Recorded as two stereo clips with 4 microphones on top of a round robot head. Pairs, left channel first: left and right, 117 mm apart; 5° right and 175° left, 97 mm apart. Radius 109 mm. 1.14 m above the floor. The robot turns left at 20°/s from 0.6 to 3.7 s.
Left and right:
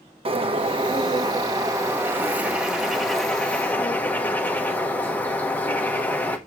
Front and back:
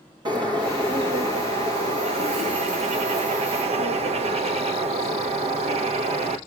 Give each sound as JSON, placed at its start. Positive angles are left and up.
{"t": 0.2, "sound": "a bird", "azimuth_deg": -130, "distance_m": 1.2}